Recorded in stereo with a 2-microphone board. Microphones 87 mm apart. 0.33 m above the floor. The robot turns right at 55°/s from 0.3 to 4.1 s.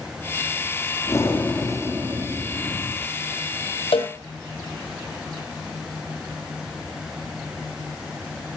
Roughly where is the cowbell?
Left.